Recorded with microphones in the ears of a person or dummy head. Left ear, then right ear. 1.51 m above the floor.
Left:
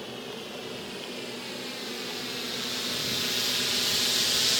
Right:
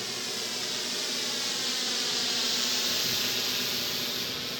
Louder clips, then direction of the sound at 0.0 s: Right 5 dB; 60° right (ahead or behind).